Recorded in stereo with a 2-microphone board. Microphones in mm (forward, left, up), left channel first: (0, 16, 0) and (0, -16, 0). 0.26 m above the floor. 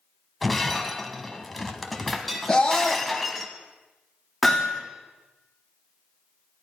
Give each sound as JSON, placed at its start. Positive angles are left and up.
{"t": 0.4, "sound": "breaking glass", "side_deg": 0, "distance_m": 1.2}
{"t": 2.5, "sound": "a scream", "side_deg": 20, "distance_m": 1.4}
{"t": 4.4, "sound": "hammering", "side_deg": -5, "distance_m": 4.0}